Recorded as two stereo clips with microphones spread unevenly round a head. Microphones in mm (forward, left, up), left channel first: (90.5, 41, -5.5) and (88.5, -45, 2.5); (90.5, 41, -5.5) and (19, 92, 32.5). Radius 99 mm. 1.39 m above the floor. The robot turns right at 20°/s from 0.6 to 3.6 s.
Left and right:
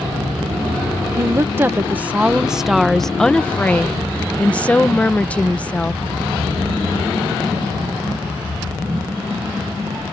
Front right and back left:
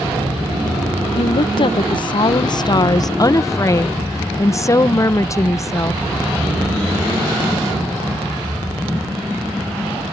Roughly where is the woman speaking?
Ahead right.